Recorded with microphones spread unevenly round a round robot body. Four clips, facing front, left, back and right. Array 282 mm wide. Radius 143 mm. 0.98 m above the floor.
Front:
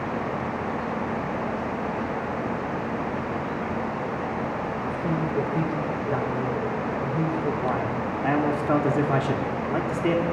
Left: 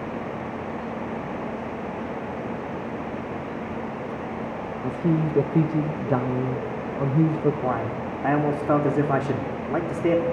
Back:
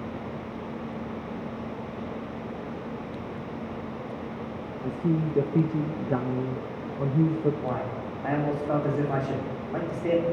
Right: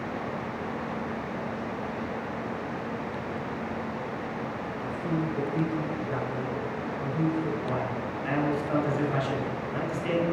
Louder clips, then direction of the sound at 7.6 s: Left 4 dB, front 5 dB; 55° left.